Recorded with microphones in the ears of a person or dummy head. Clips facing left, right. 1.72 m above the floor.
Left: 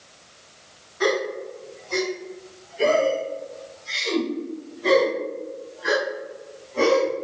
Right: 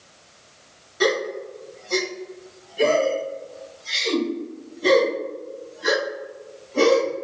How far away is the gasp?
About 0.8 m.